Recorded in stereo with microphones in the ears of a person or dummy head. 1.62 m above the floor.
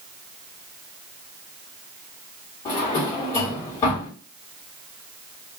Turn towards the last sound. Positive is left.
turn(degrees=30)  # may be behind; listen again after turning